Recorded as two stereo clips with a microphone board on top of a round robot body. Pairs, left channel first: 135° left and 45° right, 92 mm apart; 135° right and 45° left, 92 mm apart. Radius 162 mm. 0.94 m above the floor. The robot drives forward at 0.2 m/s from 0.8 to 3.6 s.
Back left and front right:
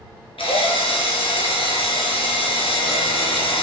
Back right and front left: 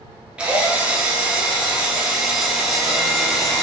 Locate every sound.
0.4 s a drill: 125° left, 3 m; by 3.6 s 130° left, 3.5 m